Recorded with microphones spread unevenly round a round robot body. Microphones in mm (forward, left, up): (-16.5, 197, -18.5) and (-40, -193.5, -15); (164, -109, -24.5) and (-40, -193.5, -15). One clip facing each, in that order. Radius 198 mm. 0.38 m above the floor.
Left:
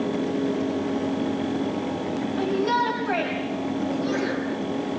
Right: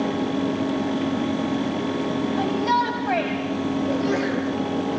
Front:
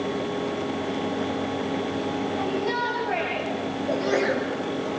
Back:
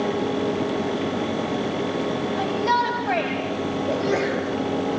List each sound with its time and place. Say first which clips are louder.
2.4 s a shout: even, back 2 dB; 155° right, 3 m
3.9 s a sneeze: right 3 dB, front 1 dB; 65° right, 9 m